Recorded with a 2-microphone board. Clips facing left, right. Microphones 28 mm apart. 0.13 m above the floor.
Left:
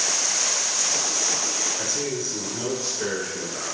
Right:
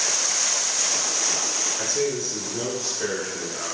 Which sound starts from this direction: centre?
A man speaking, at 1.8 s.